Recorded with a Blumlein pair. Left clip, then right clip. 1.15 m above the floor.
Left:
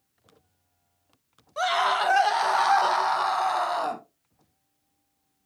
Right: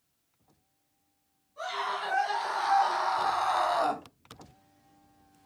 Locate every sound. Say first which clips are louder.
1.6 s a scream: left 10 dB; 50° left, 2.5 m; by 4.0 s 5° right, 2 m